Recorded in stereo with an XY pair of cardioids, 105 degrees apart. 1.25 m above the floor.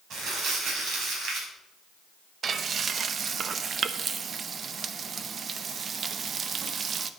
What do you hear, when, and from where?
0.1 s crumpling: 70° right, 5 m
2.4 s frying: 45° right, 0.9 m